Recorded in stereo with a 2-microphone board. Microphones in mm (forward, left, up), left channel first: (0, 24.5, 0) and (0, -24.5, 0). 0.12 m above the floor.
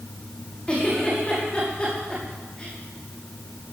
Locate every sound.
0.7 s a giggle: 25° left (ahead or behind), 7 m